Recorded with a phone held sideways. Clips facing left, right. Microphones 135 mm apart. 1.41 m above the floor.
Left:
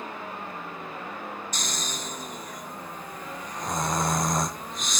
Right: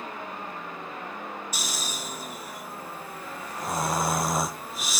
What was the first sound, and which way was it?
Snoring, 5° right (ahead or behind).